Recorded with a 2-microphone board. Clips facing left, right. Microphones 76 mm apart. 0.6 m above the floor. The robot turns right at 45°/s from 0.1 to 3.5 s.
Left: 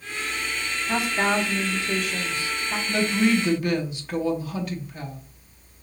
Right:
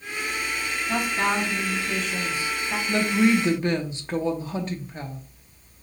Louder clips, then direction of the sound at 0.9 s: Left 1 dB; 125° left.